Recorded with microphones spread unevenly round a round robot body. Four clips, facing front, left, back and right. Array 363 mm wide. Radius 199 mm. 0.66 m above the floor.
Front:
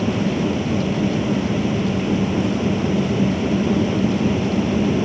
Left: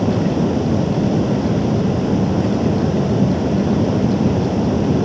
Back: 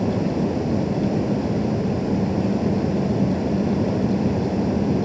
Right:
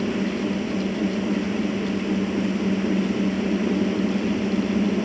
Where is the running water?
85° left.